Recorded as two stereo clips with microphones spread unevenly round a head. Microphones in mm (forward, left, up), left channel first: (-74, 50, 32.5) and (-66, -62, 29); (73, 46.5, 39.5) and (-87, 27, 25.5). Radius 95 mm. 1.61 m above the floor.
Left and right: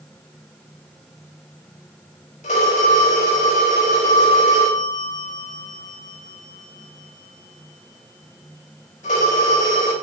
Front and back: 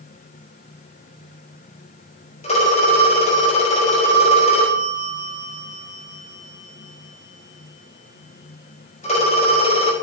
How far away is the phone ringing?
About 5 m.